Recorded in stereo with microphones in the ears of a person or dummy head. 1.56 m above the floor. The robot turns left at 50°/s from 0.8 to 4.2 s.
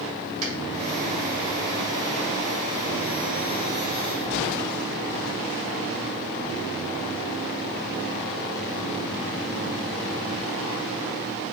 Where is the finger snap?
55° right (ahead or behind), 3 m.